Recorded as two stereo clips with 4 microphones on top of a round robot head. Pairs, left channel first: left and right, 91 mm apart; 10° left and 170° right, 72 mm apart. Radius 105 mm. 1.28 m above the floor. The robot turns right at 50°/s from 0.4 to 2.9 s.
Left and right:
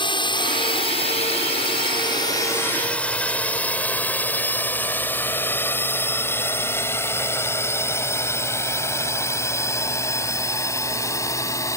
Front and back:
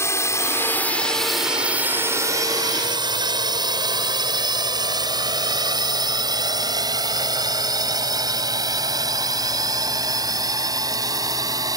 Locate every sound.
0.0 s a drone: 60° left; by 11.8 s 150° left